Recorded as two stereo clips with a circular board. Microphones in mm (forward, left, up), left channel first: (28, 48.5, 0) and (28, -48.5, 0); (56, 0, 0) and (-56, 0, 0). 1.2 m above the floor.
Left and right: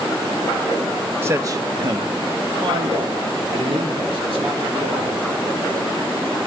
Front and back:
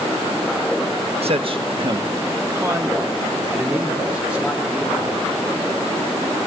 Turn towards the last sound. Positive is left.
turn(degrees=-95)